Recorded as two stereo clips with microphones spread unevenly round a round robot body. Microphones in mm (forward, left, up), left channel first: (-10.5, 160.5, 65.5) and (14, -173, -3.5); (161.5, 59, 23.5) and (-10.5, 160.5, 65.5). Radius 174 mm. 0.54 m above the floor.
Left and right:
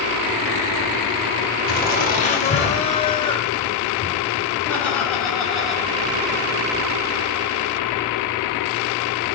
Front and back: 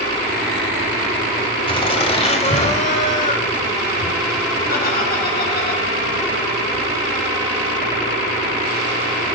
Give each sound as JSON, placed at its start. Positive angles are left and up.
{"t": 1.7, "sound": "laughter", "azimuth_deg": 30, "distance_m": 3.0}